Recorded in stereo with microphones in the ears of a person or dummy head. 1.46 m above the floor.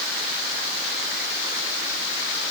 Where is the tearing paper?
I don't hear tearing paper.